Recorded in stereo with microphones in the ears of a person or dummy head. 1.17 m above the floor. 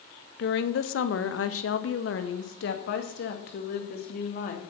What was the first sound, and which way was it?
A woman speaking, 70° left (ahead or behind).